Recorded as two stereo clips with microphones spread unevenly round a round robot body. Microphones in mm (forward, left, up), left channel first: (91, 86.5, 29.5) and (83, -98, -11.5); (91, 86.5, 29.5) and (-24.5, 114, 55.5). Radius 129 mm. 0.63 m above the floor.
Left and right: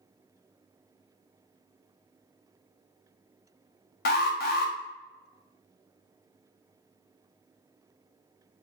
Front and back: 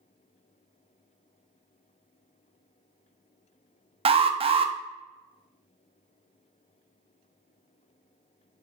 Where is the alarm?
125° left, 0.5 m.